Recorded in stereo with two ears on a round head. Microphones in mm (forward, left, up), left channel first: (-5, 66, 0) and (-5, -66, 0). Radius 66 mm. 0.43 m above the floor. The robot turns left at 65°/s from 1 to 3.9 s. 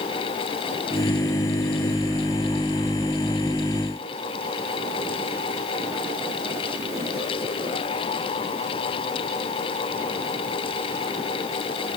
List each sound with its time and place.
Only background noise.